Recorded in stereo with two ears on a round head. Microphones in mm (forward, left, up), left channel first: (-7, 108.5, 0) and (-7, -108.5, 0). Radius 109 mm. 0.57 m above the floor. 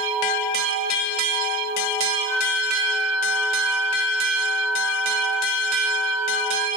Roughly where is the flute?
Left.